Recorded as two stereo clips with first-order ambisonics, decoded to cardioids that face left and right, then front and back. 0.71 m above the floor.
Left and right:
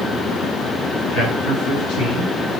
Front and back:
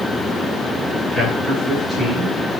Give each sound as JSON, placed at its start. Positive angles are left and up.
{"t": 1.1, "sound": "a man speaking", "azimuth_deg": 85, "distance_m": 5.5}